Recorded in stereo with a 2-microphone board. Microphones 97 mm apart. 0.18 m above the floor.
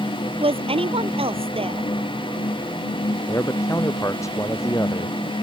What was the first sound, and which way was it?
A woman speaking, 75° right (ahead or behind).